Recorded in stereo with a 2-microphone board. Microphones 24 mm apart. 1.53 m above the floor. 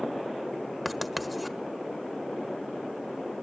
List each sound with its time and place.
0.8 s writing: centre (ahead or behind), 1.2 m